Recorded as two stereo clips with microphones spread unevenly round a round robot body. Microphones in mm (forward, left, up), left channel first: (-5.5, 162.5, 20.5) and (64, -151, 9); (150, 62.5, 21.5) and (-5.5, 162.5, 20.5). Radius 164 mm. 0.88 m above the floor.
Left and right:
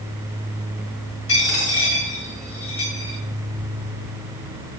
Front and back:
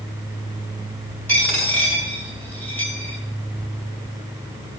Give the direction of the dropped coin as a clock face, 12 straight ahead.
10 o'clock.